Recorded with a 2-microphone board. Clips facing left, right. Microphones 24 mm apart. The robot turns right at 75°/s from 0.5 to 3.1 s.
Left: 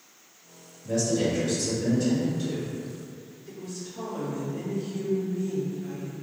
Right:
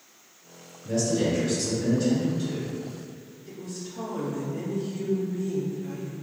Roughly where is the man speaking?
Behind right.